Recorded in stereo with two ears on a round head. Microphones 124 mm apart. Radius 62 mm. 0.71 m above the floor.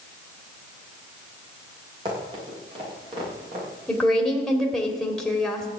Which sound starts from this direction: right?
Running footsteps, at 2.0 s.